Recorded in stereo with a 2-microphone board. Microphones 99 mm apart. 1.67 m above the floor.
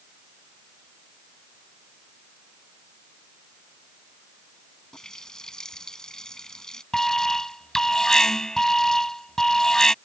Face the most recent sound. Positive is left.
turn(degrees=5)  # may be behind; listen again after turning